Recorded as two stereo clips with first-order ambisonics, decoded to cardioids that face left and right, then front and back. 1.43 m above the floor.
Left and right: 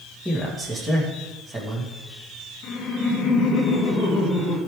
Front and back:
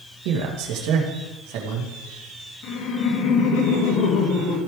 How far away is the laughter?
About 2 m.